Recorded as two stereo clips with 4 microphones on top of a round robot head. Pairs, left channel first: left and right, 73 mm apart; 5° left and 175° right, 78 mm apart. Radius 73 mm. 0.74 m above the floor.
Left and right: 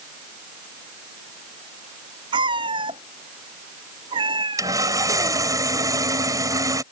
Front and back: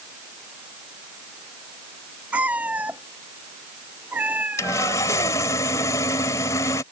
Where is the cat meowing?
100° right.